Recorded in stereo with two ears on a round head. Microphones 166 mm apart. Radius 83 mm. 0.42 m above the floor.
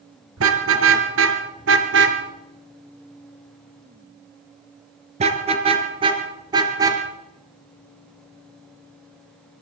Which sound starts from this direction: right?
A car horn, at 0.4 s.